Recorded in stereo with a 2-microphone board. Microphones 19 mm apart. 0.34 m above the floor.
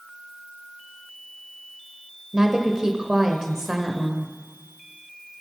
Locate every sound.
2.3 s a woman speaking: 30° right (ahead or behind), 1.1 m